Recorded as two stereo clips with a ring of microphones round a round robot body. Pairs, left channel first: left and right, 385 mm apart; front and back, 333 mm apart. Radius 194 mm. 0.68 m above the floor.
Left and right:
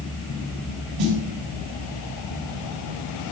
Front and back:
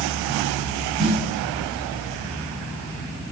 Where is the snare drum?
105° right, 3.5 m.